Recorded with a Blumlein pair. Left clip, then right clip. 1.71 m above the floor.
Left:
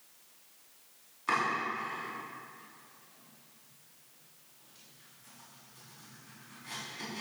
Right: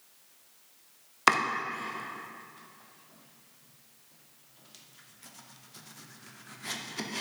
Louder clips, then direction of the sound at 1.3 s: Right 5 dB; 45° right.